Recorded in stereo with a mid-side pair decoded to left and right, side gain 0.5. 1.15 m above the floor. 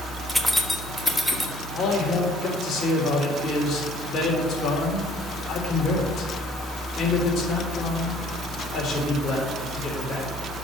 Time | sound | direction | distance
0.3 | keys jangling | straight ahead | 1.2 m
1.7 | a man speaking | 45° left | 3.5 m